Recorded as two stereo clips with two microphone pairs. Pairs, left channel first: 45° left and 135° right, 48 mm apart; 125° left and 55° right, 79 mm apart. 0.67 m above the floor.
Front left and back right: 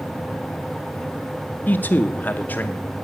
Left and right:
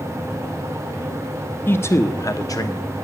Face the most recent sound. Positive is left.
turn(degrees=90)